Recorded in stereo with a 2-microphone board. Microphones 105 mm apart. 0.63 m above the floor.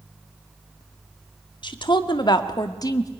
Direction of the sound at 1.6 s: 45° left (ahead or behind).